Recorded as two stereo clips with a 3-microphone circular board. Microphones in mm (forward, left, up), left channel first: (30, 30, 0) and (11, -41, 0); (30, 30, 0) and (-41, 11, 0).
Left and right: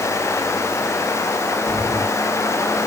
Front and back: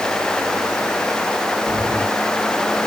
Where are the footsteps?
70° right, 5 m.